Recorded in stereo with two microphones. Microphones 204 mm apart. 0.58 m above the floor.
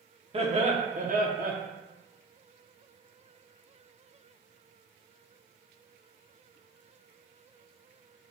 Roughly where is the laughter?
Right.